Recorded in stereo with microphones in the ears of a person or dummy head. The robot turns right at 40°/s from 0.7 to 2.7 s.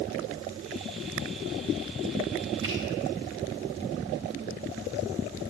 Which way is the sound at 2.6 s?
25° right (ahead or behind).